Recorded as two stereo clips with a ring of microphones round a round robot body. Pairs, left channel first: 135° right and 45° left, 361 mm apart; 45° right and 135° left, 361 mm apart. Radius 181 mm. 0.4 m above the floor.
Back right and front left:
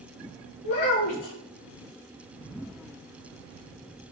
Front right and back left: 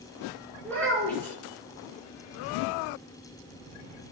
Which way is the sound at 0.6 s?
130° right.